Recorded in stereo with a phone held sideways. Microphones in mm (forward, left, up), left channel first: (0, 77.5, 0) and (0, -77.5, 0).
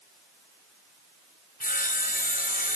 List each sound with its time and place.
1.6 s sawing: 60° left (ahead or behind), 0.8 m